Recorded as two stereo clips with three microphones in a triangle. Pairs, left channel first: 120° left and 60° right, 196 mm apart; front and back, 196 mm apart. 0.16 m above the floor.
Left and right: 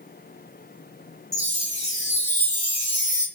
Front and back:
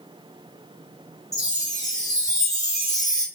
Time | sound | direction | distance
1.3 | a chime | 70° right | 2.5 m